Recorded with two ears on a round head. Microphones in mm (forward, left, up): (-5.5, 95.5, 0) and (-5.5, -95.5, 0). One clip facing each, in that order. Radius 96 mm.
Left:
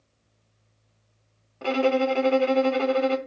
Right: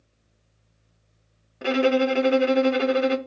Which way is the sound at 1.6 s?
20° right (ahead or behind).